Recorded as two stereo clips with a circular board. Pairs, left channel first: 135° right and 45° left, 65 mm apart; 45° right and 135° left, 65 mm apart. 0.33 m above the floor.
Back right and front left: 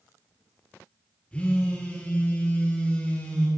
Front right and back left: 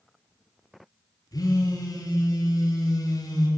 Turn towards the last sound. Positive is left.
turn(degrees=-60)